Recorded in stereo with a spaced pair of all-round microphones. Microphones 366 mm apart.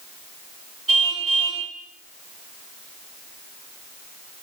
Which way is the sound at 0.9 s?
65° right (ahead or behind).